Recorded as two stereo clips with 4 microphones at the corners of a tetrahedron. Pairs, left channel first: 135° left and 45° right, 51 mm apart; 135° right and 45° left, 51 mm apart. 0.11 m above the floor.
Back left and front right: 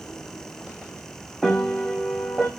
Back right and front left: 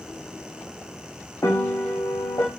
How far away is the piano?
About 1.7 m.